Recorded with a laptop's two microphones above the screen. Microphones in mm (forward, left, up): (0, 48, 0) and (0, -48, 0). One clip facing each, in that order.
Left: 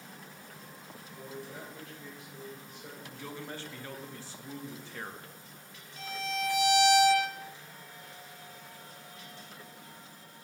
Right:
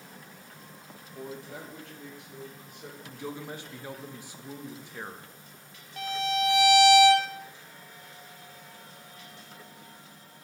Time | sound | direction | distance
1.1 | a man speaking | 60° right (ahead or behind) | 1.0 m
3.0 | a man speaking | 15° right (ahead or behind) | 0.9 m
6.0 | a violin | 65° right (ahead or behind) | 0.8 m